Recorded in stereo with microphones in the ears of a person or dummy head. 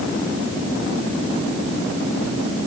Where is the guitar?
I don't hear a guitar.